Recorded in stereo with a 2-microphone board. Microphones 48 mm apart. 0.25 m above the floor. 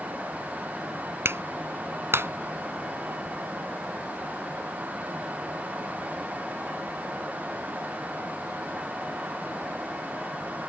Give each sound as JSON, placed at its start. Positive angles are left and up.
{"t": 1.2, "sound": "a clap", "side_deg": -60}